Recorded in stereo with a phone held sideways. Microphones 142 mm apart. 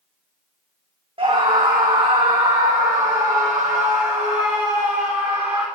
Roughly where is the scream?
Right.